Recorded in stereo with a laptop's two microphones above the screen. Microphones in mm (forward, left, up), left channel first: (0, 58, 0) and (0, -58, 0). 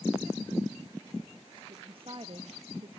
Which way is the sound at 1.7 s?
50° right (ahead or behind).